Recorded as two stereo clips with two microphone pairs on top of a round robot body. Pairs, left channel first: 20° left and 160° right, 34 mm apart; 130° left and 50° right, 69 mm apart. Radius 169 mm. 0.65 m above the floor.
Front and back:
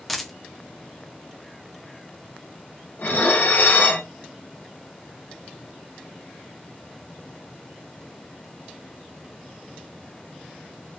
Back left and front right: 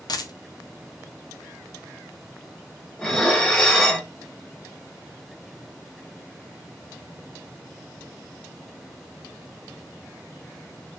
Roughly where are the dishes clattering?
Ahead left.